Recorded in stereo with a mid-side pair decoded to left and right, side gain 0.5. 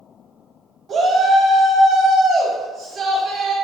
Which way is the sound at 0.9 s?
60° right.